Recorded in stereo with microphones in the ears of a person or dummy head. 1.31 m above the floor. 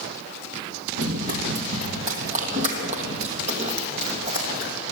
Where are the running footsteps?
50° right (ahead or behind), 2.5 m; by 4.8 s 35° right (ahead or behind), 4 m.